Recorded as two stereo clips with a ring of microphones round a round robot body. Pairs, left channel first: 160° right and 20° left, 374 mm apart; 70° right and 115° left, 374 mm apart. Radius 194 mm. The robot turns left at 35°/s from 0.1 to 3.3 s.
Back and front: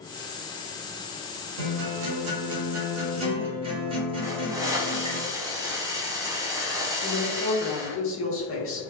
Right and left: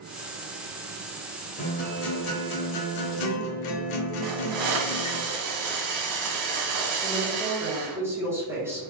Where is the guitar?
5° left, 0.7 m; by 5.2 s 55° right, 0.7 m.